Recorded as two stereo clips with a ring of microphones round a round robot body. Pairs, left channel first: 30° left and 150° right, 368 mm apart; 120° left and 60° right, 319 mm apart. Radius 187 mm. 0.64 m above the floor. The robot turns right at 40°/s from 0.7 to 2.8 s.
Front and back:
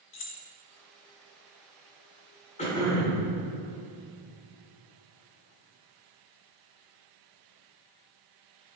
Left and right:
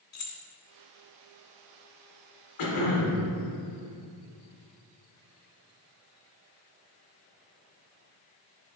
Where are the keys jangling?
85° left, 1.0 m.